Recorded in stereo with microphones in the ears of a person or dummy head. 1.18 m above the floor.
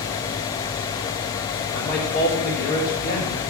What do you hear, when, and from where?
1.7 s a man speaking: 60° left (ahead or behind), 3 m